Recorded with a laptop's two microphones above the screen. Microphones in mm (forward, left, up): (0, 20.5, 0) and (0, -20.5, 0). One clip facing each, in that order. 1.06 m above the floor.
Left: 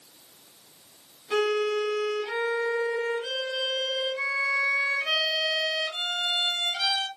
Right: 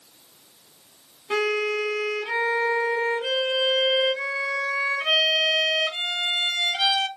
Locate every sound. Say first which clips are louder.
1.3 s a violin: right 1 dB; 65° right (ahead or behind), 2.5 m